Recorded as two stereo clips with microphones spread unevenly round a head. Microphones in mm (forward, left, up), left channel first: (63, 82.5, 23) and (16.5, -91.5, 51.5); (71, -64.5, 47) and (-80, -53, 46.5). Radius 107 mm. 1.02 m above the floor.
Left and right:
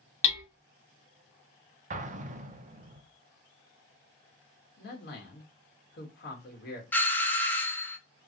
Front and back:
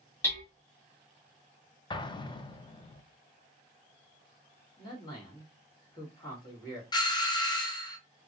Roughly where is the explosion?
Ahead right.